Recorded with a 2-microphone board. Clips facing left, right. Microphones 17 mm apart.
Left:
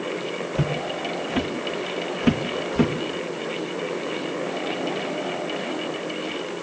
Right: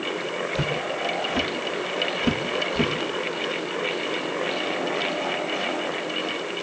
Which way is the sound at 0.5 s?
10° right (ahead or behind).